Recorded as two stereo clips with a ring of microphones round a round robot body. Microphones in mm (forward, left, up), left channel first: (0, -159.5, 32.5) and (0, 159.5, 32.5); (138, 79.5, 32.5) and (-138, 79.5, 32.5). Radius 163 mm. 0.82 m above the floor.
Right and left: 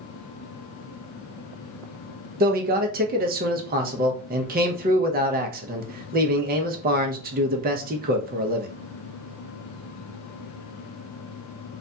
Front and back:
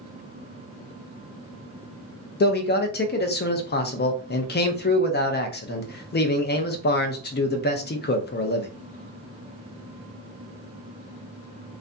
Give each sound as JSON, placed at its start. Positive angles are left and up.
{"t": 2.4, "sound": "a man speaking", "azimuth_deg": 40, "distance_m": 0.6}